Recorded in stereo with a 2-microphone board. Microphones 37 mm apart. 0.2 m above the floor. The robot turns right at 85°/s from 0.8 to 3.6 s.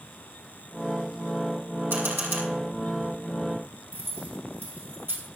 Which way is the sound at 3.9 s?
75° right (ahead or behind).